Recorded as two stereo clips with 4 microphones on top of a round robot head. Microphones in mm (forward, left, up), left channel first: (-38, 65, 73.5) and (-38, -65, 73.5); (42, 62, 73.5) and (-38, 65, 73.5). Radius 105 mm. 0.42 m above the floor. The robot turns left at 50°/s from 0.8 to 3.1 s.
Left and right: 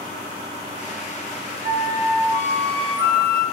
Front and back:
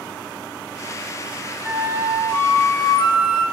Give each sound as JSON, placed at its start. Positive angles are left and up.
{"t": 1.6, "sound": "a flute", "azimuth_deg": 95, "distance_m": 0.9}